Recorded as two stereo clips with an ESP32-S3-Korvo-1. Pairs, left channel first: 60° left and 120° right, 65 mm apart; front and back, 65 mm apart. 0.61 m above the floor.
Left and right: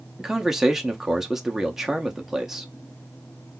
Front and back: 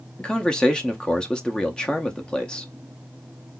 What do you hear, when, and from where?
0.2 s a man speaking: 50° right, 0.6 m